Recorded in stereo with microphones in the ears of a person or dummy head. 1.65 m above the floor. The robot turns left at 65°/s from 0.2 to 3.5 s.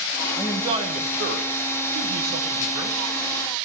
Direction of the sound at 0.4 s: 5° right.